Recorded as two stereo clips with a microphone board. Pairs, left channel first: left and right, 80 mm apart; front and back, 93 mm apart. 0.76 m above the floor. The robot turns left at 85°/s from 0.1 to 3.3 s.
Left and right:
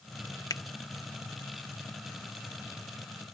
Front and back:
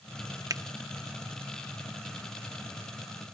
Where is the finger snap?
130° left; by 0.6 s 120° left.